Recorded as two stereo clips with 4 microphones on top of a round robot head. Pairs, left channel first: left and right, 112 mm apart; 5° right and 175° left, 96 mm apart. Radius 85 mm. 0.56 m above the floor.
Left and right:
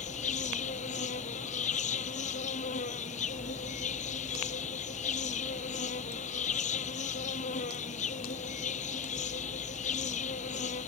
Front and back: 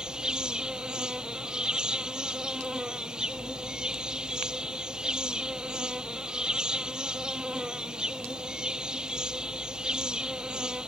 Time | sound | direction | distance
0.0 | an insect | 95° left | ?